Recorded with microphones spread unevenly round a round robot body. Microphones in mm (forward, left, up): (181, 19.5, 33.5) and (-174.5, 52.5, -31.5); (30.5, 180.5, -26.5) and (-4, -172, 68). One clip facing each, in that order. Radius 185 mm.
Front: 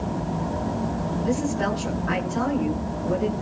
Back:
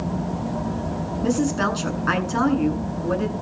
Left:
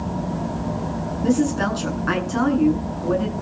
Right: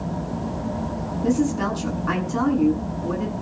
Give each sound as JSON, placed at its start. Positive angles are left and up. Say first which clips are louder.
{"t": 1.2, "sound": "a woman speaking", "louder": "back 4 dB, left 2 dB", "azimuth_deg": 170, "distance_m": 8.5}